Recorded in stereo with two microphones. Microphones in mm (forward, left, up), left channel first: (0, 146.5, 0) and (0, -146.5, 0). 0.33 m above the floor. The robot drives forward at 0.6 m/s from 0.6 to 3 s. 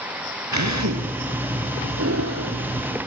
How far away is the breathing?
About 2 m.